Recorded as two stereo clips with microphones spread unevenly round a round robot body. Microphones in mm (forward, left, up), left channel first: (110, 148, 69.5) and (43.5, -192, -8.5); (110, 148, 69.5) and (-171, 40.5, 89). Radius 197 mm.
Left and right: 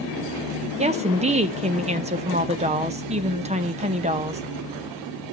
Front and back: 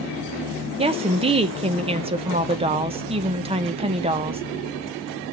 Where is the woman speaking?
100° right, 0.7 m.